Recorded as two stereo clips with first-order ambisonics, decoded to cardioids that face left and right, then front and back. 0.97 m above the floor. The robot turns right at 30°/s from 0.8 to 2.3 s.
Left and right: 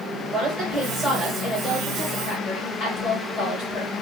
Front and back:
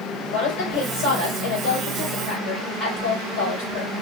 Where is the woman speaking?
10° right, 3.5 m; by 3.9 s 35° left, 3.5 m.